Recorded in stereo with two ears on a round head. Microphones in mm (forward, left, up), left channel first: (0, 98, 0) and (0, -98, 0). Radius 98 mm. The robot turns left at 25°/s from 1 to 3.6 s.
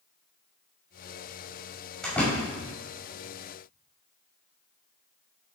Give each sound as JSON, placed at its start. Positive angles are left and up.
{"t": 2.0, "sound": "a door slam", "side_deg": 0, "distance_m": 6.0}